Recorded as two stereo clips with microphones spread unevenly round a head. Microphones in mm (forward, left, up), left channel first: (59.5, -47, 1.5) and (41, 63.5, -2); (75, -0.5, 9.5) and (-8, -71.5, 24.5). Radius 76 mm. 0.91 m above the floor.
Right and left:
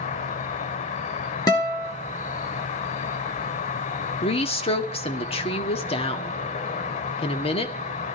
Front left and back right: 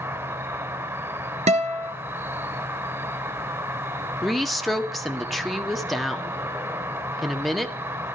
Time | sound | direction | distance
0.0 | an insect | 75° right | 1.5 m
1.5 | a guitar | 145° right | 1.6 m
4.2 | a woman speaking | 45° right | 1.8 m